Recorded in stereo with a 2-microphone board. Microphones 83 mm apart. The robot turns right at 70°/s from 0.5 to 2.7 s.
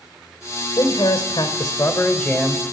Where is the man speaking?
50° left, 1.5 m; by 2.6 s straight behind, 1.5 m.